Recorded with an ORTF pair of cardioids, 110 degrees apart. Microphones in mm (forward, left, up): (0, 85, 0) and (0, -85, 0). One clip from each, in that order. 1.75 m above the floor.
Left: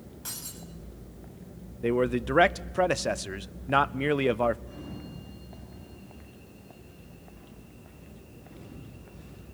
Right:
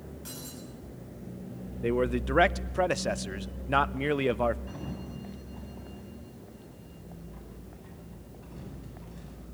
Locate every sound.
0.2 s breaking glass: 35° left, 7 m
1.8 s a man speaking: 5° left, 0.5 m
4.7 s a sliding door: 65° right, 10 m